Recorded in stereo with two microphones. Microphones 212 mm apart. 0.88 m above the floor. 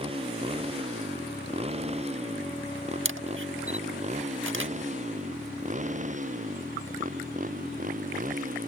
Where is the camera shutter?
70° right (ahead or behind).